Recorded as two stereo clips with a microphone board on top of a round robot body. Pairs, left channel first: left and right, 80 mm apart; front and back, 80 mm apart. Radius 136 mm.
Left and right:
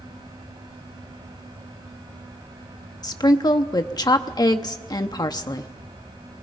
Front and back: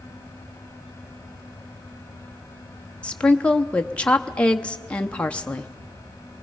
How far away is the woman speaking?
About 0.9 m.